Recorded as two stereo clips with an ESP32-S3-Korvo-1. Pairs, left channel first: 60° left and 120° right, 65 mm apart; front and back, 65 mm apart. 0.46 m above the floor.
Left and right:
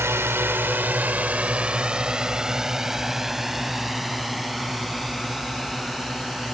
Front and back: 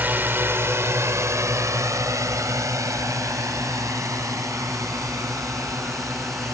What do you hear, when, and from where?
0.0 s a drone: 135° right; by 6.5 s 145° left